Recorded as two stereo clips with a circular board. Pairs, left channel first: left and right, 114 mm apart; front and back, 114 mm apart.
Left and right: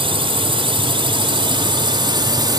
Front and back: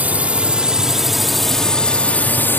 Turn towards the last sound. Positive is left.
turn(degrees=-65)